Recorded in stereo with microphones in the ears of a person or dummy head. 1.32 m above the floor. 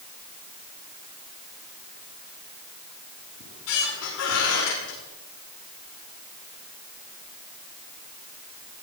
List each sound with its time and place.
3.4 s a squeak: 75° left (ahead or behind), 6.5 m